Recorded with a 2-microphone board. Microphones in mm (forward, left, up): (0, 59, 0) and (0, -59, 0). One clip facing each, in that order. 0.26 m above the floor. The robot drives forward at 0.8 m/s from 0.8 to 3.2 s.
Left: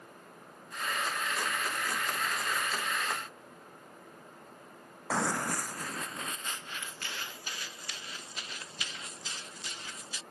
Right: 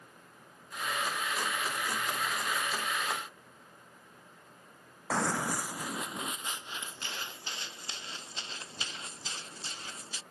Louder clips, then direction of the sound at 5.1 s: Even; centre (ahead or behind).